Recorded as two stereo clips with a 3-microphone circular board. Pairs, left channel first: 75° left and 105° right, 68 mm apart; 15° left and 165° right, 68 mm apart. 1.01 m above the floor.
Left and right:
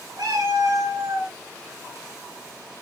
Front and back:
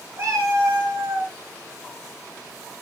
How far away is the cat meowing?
About 6 m.